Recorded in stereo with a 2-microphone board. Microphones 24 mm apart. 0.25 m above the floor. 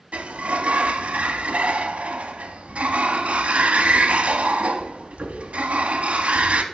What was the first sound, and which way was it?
A sliding door, 60° right (ahead or behind).